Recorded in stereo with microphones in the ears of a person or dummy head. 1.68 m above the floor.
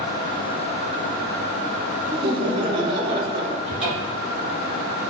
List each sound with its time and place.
2.1 s laughter: 25° right (ahead or behind), 0.6 m
3.6 s a cupboard door: 30° right (ahead or behind), 1.6 m